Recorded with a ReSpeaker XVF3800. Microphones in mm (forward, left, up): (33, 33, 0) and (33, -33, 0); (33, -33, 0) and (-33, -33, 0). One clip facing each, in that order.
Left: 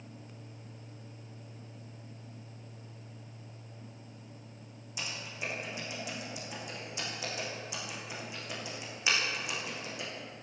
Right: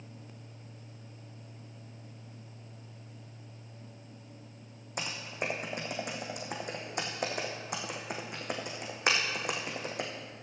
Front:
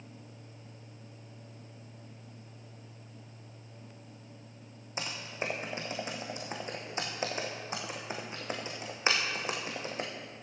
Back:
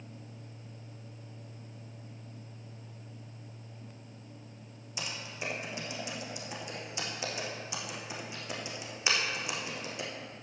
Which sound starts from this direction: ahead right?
Typing on a keyboard, at 5.0 s.